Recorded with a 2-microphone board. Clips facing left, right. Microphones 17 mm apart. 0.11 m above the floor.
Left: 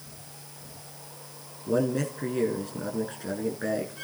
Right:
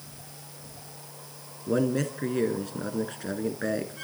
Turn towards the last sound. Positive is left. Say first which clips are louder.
# even
turn(degrees=-10)  # may be behind; listen again after turning